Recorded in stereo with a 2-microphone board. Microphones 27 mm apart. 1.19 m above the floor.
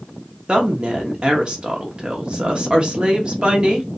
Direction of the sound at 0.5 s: 35° right (ahead or behind).